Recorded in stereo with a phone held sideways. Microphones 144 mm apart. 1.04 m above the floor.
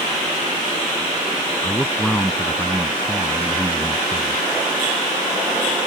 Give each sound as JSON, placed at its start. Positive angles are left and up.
{"t": 1.6, "sound": "a man speaking", "side_deg": 10}